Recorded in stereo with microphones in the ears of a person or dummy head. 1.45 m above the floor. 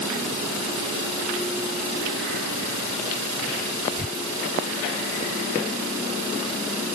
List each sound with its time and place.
Only background noise.